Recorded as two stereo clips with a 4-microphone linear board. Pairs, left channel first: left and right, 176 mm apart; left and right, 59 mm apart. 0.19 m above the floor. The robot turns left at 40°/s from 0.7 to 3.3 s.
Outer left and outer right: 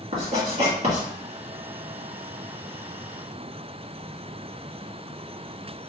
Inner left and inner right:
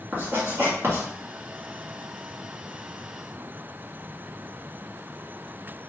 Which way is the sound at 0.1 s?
40° right (ahead or behind).